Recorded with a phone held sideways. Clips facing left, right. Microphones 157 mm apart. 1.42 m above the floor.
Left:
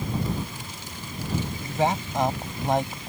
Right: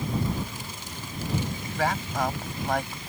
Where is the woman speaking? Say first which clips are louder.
Left 4 dB; 20° left (ahead or behind).